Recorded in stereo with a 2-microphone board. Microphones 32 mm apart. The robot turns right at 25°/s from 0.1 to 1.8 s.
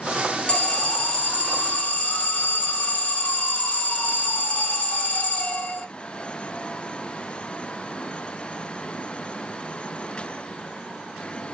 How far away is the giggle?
I don't hear a giggle.